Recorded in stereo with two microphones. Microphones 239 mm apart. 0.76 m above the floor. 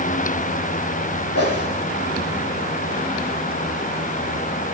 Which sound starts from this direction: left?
A whoosh, at 1.4 s.